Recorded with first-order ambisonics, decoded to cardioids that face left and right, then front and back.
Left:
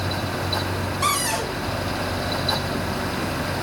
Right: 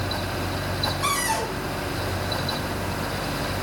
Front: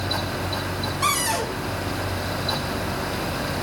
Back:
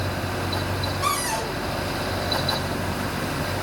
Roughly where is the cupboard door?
Ahead left.